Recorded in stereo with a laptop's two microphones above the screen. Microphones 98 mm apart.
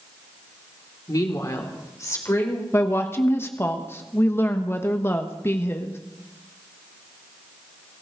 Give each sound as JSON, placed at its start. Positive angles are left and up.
{"t": 1.1, "sound": "a woman speaking", "side_deg": 40, "distance_m": 2.0}
{"t": 2.7, "sound": "a woman speaking", "side_deg": 25, "distance_m": 1.1}